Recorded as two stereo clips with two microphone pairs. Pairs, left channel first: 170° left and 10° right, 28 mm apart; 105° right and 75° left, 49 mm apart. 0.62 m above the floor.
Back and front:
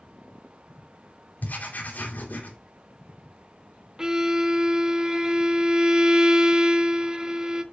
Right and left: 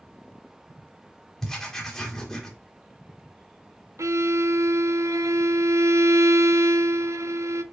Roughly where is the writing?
Behind.